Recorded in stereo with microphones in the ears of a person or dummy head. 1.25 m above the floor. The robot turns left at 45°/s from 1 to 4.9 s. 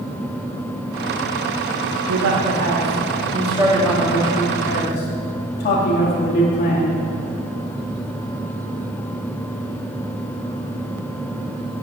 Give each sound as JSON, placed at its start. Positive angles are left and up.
{"t": 2.1, "sound": "a man speaking", "azimuth_deg": -100, "distance_m": 2.0}